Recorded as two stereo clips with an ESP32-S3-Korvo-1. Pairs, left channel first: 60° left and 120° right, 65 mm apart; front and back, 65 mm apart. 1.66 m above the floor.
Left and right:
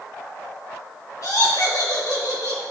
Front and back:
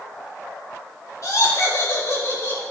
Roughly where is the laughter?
Ahead left.